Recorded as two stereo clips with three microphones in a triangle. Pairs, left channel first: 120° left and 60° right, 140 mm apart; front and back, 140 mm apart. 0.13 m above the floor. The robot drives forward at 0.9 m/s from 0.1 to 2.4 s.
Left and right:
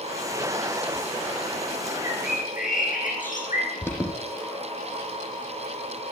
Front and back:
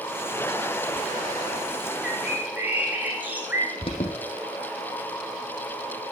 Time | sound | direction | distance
2.0 | a bird | 100° left | 5 m
3.8 | an alarm | 50° left | 5 m